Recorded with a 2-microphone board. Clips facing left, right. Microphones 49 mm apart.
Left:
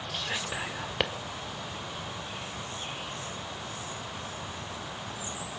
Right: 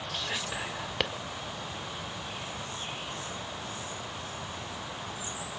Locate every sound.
0.1 s whispering: 10° left (ahead or behind), 1.1 m